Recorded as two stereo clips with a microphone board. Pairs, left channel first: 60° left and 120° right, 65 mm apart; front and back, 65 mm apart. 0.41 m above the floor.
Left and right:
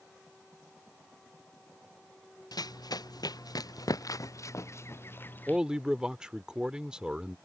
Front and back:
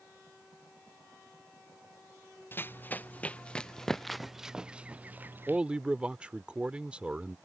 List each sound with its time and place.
2.5 s running footsteps: 55° left; by 5.6 s 125° left
5.5 s a man speaking: 165° right